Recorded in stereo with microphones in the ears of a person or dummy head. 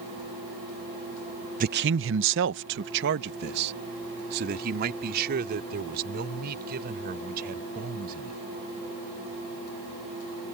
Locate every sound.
1.6 s a man speaking: 45° right (ahead or behind); by 8.4 s 55° right (ahead or behind)